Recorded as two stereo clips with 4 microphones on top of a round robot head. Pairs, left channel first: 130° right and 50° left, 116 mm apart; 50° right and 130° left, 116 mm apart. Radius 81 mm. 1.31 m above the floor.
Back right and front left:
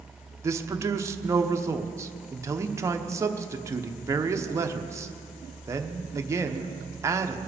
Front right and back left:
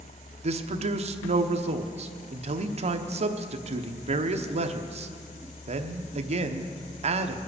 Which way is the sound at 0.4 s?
115° left.